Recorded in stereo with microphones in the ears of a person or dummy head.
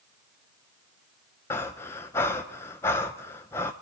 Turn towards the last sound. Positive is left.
turn(degrees=15)  # may be behind; listen again after turning